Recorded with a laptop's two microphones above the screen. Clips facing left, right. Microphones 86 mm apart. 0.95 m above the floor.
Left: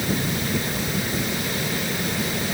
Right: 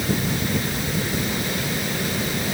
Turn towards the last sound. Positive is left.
No sound to turn to.